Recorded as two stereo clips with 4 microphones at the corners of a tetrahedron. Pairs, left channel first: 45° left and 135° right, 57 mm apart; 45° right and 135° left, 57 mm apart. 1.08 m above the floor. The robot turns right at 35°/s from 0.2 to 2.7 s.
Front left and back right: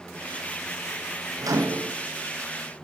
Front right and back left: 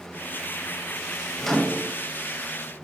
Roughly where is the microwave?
Behind right.